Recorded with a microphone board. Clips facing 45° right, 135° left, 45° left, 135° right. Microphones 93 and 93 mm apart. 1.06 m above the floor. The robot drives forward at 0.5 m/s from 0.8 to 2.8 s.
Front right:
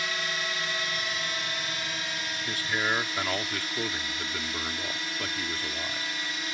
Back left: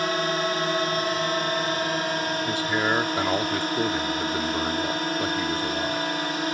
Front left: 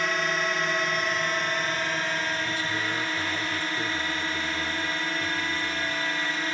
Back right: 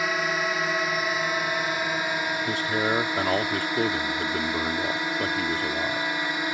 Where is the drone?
145° left; by 6.5 s 150° left.